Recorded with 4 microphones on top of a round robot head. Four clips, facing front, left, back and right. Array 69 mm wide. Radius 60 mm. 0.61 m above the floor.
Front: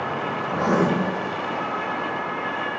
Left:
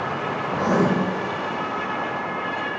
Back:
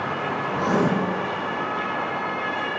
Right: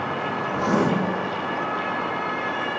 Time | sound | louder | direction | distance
0.5 | writing | left 2 dB, front 2 dB | 30° left | 0.6 m